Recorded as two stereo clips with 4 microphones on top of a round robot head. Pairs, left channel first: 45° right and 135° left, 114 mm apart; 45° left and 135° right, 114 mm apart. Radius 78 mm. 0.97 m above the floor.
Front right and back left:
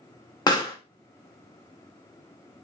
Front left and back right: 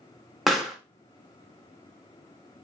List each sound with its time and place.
0.5 s a pop: 45° right, 0.8 m